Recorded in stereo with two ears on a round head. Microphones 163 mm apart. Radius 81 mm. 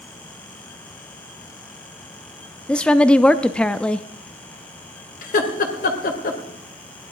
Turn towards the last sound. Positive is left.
turn(degrees=50)  # may be behind; listen again after turning